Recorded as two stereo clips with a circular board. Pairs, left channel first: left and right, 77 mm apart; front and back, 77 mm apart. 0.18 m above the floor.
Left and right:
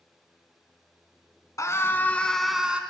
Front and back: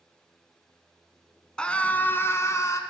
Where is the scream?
75° left, 1.4 m; by 2.8 s 25° right, 1.4 m.